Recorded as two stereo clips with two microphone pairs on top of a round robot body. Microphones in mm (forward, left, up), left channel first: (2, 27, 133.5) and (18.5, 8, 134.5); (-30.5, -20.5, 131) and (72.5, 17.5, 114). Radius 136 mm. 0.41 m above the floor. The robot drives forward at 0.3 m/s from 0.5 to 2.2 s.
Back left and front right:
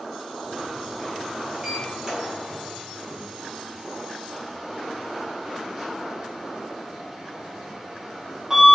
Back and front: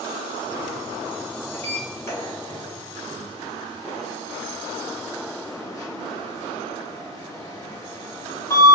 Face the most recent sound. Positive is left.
turn(degrees=-120)